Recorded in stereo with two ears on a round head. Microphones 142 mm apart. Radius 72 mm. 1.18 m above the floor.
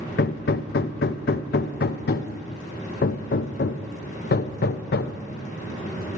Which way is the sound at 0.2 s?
65° left (ahead or behind).